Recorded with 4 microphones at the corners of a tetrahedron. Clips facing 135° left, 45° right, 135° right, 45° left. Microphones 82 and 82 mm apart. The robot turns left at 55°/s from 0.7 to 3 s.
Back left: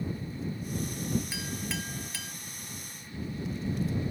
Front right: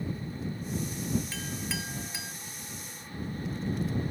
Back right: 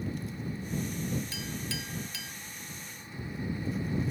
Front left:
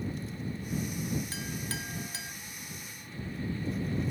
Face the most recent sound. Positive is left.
turn(degrees=-30)